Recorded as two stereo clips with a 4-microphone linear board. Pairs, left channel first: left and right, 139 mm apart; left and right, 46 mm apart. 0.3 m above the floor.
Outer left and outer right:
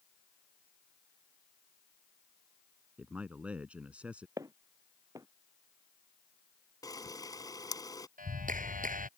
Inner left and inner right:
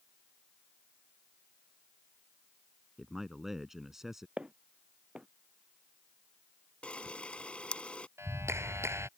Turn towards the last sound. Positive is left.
turn(degrees=-80)